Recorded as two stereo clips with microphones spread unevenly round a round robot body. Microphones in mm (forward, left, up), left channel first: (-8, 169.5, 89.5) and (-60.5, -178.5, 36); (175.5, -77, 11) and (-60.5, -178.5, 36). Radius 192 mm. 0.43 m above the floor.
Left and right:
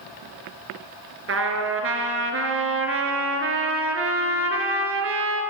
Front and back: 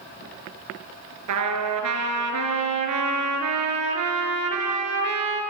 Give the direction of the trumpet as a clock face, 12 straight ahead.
5 o'clock.